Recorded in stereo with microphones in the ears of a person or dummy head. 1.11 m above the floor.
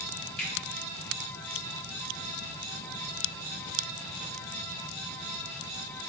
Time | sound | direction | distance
0.4 | a finger snap | 5° left (ahead or behind) | 2.5 m